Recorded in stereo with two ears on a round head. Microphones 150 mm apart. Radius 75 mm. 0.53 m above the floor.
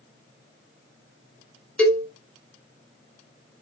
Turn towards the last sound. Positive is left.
turn(degrees=5)  # may be behind; listen again after turning